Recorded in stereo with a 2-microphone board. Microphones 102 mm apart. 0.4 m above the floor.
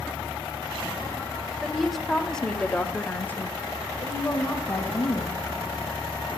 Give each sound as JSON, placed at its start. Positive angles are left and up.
{"t": 1.6, "sound": "a woman speaking", "side_deg": 0, "distance_m": 1.5}